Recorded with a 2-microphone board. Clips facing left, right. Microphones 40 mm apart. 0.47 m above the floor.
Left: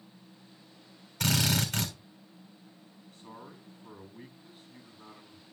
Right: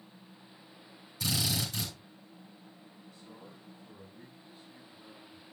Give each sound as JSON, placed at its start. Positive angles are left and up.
{"t": 1.2, "sound": "a drill", "side_deg": 60, "distance_m": 3.0}
{"t": 3.1, "sound": "a man speaking", "side_deg": 50, "distance_m": 3.5}